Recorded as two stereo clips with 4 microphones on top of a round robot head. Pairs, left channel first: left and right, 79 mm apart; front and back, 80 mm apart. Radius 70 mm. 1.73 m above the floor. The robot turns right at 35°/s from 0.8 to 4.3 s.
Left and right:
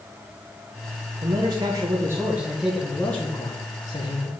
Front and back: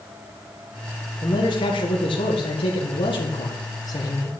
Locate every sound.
1.2 s a man speaking: 55° right, 2 m; by 4.3 s 55° left, 2 m